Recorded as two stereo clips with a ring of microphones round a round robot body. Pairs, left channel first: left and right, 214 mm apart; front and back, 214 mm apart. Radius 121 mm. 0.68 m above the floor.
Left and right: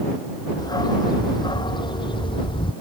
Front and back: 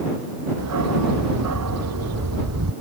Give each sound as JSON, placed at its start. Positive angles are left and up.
{"t": 0.6, "sound": "a dog barking", "azimuth_deg": 160}